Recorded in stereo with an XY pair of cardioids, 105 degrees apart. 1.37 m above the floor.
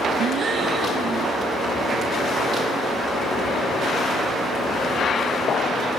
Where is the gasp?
55° right, 1.1 m.